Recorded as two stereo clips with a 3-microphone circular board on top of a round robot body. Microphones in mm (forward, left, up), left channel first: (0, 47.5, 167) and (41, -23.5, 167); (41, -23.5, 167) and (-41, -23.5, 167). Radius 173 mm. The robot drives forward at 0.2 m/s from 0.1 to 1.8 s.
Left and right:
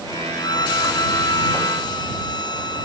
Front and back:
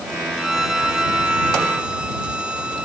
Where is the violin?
95° left; by 2.9 s 105° left.